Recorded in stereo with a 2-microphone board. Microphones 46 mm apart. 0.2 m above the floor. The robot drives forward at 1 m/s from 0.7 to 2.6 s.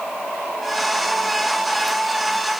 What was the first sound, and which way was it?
Only background noise.